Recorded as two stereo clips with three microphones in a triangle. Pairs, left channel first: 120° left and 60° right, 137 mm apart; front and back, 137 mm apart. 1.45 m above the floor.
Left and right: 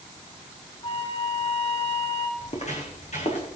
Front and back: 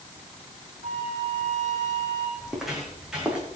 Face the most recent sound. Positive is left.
turn(degrees=100)